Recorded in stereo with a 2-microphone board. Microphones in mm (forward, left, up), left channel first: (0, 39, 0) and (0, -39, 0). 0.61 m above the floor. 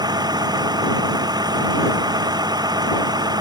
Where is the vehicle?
60° right (ahead or behind).